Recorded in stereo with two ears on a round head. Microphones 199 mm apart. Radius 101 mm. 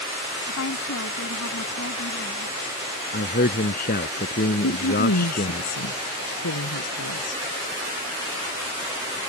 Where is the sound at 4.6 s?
75° left (ahead or behind).